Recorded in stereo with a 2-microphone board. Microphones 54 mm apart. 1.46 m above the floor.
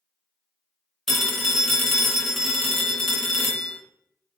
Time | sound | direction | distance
1.1 | a phone ringing | centre (ahead or behind) | 0.9 m